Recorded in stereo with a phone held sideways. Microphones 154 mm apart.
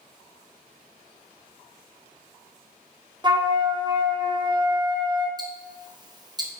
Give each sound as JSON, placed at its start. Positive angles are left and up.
{"t": 3.2, "sound": "a flute", "side_deg": -30, "distance_m": 0.8}
{"t": 5.4, "sound": "ticking", "side_deg": -25, "distance_m": 0.9}